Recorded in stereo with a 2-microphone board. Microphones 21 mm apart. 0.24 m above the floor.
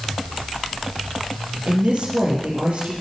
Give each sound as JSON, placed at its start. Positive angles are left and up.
{"t": 1.7, "sound": "a woman speaking", "side_deg": -80, "distance_m": 6.0}